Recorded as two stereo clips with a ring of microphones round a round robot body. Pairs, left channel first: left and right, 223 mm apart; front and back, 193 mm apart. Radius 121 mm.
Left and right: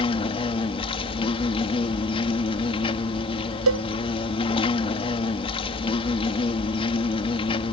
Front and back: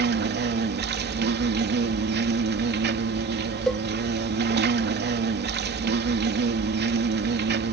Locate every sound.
0.0 s an insect: 155° left
3.7 s a cowbell: 85° right